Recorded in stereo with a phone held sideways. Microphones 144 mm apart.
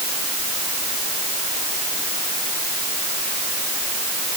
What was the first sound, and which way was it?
Only background noise.